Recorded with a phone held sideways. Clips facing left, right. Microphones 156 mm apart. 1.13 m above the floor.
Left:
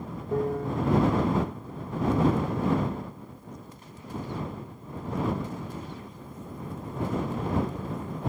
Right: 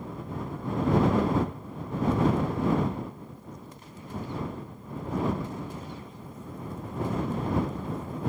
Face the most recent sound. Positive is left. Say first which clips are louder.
# left 6 dB
turn(degrees=70)  # may be behind; listen again after turning